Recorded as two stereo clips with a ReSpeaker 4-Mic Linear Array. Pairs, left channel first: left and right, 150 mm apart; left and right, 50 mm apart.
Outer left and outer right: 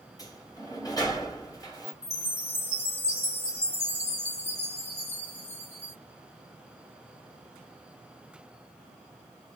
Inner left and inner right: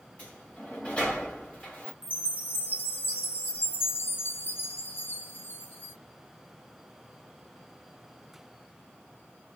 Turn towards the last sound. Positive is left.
turn(degrees=45)  # may be behind; listen again after turning